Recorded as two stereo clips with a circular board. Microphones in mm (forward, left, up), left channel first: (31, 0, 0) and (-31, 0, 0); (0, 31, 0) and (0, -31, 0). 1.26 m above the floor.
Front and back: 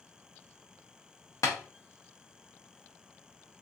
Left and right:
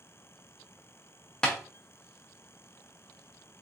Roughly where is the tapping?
Ahead.